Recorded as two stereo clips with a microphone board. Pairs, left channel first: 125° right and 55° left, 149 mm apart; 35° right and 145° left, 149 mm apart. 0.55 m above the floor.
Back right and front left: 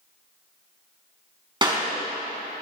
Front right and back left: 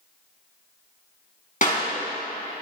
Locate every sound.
1.6 s a clap: 5° right, 3.5 m